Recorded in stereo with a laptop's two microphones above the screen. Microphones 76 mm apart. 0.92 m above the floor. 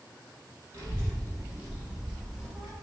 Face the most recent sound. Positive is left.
turn(degrees=0)  # may be behind; listen again after turning